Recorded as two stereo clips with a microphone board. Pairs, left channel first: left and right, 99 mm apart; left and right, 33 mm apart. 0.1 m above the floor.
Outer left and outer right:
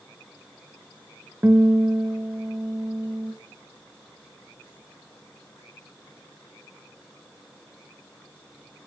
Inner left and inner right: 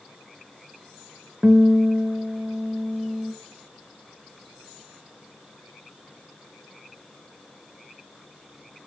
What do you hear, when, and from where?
1.4 s a guitar: 20° right (ahead or behind), 1.7 m